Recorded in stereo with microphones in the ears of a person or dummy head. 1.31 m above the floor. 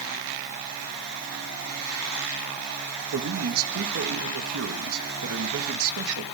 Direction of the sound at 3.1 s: 75° right (ahead or behind).